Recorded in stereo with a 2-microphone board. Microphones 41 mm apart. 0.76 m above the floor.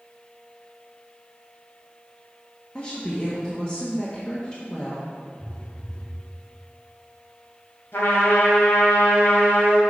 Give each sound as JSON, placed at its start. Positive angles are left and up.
{"t": 2.8, "sound": "a woman speaking", "side_deg": 25, "distance_m": 1.2}
{"t": 5.4, "sound": "a phone buzzing", "side_deg": 20, "distance_m": 2.0}
{"t": 7.9, "sound": "a trumpet", "side_deg": 80, "distance_m": 1.7}